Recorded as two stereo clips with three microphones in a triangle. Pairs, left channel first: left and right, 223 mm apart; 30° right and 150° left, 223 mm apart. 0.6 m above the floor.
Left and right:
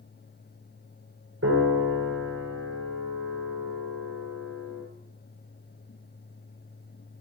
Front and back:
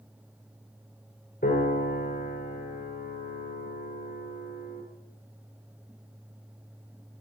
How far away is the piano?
About 5 m.